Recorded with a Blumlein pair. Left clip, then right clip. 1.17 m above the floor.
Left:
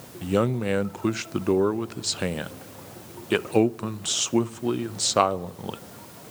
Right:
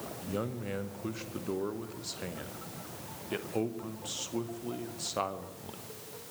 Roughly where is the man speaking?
Ahead left.